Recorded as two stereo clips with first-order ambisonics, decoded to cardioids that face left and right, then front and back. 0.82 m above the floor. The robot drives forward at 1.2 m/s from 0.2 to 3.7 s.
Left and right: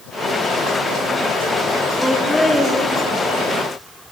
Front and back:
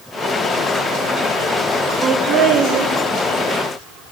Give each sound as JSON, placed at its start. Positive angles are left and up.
{"t": 2.0, "sound": "laughter", "azimuth_deg": 160, "distance_m": 0.5}